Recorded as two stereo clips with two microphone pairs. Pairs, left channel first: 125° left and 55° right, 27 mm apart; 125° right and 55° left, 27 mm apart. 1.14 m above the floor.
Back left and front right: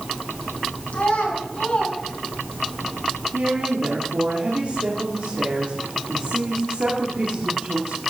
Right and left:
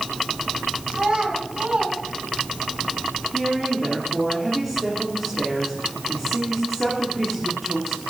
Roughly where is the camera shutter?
I don't hear a camera shutter.